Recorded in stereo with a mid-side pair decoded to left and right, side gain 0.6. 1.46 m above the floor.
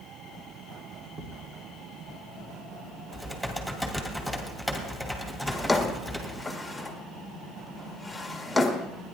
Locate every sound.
1.2 s a thud: 55° right, 3 m
3.1 s typing on a keyboard: 5° right, 3 m
5.5 s a drawer: 5° left, 1.6 m